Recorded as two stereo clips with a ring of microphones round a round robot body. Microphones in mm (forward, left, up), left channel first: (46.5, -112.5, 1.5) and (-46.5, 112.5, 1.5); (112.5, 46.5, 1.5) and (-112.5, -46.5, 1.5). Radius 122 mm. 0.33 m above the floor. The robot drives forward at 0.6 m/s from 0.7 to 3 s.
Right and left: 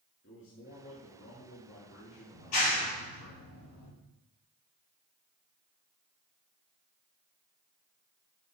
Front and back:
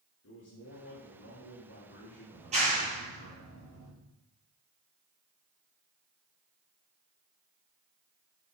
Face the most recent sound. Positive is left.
turn(degrees=-95)